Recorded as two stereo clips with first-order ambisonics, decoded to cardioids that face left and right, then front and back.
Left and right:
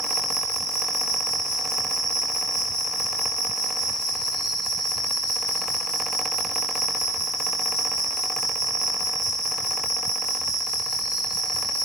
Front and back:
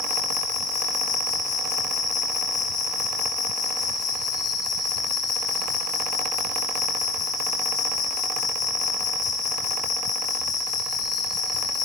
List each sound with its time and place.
0.0 s an insect: 75° right, 7 m